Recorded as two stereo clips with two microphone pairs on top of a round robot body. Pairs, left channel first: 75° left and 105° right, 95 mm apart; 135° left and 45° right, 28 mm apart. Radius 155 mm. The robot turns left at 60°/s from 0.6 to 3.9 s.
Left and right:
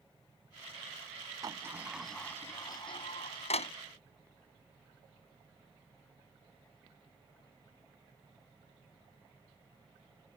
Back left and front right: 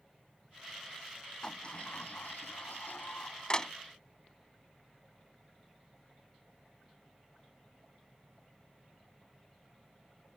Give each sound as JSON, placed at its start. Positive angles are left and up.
{"t": 1.4, "sound": "a sliding door", "azimuth_deg": -155}